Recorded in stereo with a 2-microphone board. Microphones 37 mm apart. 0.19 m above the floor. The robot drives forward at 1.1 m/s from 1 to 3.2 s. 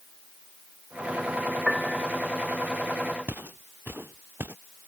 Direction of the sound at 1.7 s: 5° left (ahead or behind).